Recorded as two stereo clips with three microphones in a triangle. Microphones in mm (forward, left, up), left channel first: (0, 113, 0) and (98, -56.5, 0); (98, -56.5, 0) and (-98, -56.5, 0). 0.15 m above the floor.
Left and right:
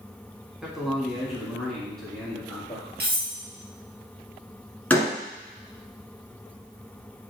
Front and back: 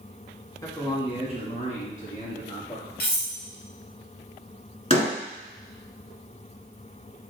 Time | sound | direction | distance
0.6 | a man speaking | 20° left | 1.2 m
3.0 | cutlery clinking | 30° right | 1.7 m
4.9 | a door slam | 40° left | 1.5 m